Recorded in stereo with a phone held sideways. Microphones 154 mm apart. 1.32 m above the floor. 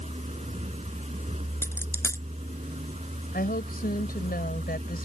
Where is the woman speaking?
80° left.